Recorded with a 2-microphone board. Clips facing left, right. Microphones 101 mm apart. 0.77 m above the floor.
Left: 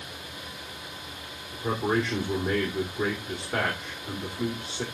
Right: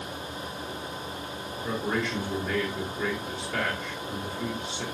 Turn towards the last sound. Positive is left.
turn(degrees=35)  # may be behind; listen again after turning